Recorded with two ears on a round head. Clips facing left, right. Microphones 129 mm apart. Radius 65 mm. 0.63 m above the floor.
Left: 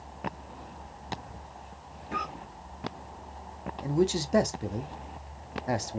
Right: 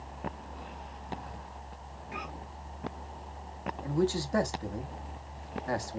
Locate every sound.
2.1 s a cough: 60° left (ahead or behind), 3 m
3.8 s a man speaking: 20° left (ahead or behind), 0.6 m